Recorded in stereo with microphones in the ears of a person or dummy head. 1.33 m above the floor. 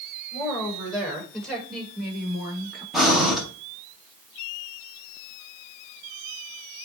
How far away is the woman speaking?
About 6.5 m.